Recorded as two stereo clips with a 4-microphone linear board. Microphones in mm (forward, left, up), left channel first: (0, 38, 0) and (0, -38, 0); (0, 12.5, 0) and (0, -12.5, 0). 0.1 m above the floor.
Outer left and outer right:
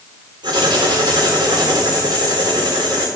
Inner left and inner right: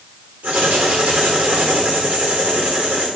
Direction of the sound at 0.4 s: 80° right.